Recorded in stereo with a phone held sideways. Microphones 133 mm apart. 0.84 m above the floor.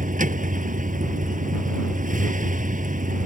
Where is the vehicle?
80° right.